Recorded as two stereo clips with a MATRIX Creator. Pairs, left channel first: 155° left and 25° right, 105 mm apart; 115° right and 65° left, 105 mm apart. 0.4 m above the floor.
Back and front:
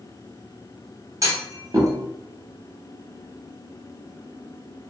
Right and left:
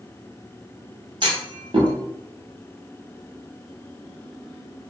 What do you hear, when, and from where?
1.2 s a clunk: 35° left, 0.7 m